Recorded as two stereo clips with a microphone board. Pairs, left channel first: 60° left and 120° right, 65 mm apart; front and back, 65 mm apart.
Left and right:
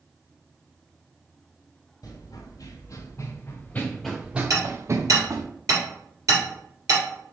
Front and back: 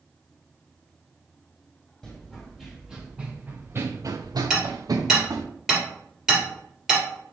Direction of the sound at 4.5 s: 95° right.